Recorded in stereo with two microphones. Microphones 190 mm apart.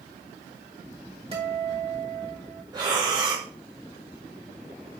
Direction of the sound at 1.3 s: 30° right (ahead or behind).